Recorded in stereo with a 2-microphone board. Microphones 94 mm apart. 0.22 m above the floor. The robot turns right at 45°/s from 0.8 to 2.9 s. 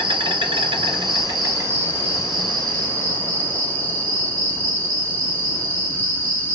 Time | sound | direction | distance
0.0 | an insect | 75° right | 1.9 m